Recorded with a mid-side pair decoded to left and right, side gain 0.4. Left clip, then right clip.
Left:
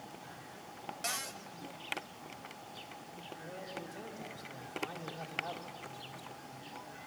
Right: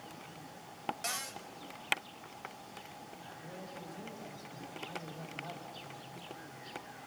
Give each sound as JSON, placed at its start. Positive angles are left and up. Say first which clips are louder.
{"t": 1.0, "sound": "a cupboard door", "louder": "left 4 dB", "azimuth_deg": 5, "distance_m": 1.5}
{"t": 3.4, "sound": "a man speaking", "louder": "left 4 dB", "azimuth_deg": 40, "distance_m": 4.0}